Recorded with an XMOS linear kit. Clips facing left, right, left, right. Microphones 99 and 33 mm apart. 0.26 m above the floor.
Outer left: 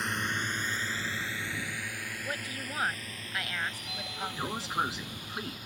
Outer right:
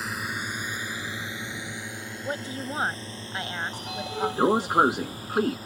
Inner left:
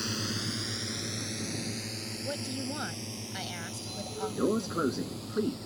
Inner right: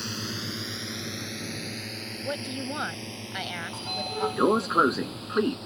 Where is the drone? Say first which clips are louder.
Outer right 1 dB, even; 5° right (ahead or behind); by 5.7 s 35° right (ahead or behind).